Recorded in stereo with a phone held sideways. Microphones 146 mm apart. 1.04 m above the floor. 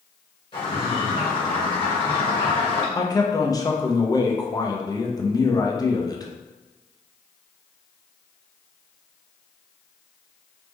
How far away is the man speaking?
About 0.5 m.